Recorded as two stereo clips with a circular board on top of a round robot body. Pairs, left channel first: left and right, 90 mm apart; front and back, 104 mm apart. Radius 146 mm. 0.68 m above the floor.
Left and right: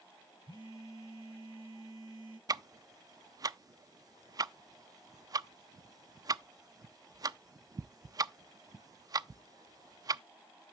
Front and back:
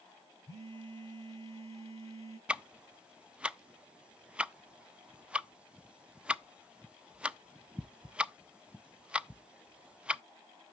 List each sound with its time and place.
0.5 s a phone buzzing: 125° right, 7 m
2.5 s ticking: 105° right, 0.6 m